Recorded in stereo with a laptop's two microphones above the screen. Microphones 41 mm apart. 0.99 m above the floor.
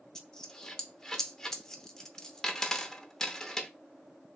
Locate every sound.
0.1 s a dropped coin: 15° left (ahead or behind), 0.6 m